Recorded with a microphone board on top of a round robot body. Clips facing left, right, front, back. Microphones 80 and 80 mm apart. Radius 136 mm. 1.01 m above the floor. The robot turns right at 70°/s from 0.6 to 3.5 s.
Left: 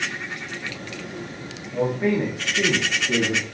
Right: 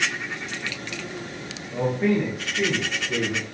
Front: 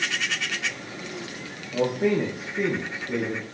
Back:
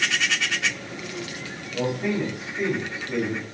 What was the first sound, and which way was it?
A man speaking, 20° right.